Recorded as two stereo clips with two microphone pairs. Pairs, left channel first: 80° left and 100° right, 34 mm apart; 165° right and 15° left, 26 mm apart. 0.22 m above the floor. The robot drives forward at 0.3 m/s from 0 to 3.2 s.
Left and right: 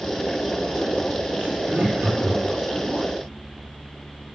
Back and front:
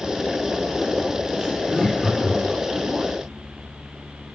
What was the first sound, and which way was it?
Laughter, 75° right.